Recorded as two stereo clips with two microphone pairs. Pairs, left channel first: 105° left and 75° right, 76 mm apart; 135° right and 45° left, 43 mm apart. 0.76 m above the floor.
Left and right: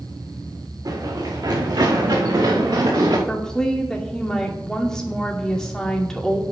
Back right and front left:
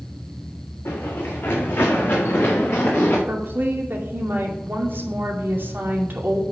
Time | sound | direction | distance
0.8 | running footsteps | 110° right | 3.5 m
3.3 | a woman speaking | 20° left | 2.5 m